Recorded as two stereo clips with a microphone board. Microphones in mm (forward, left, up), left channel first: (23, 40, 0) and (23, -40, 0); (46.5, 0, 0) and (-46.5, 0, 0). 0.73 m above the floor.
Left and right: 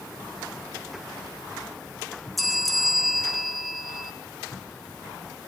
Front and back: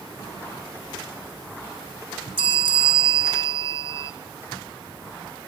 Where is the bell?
Straight behind, 0.6 m.